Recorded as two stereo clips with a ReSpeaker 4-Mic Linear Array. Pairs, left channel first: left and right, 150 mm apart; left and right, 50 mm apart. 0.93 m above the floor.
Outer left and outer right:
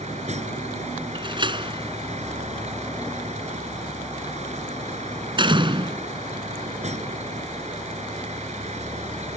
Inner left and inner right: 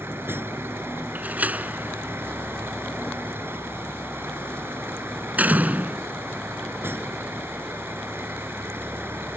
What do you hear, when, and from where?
0.0 s a vehicle: 50° right (ahead or behind)
1.1 s a door slam: 35° right (ahead or behind)